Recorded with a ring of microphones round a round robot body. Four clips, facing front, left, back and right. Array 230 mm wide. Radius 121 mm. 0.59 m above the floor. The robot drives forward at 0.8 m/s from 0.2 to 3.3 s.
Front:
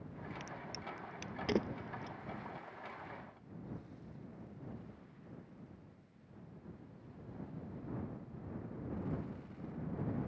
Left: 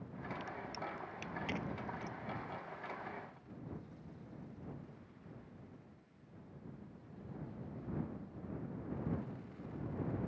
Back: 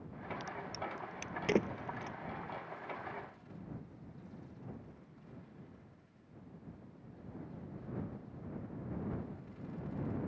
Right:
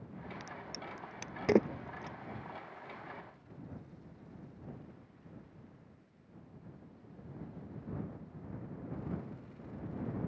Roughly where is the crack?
Right.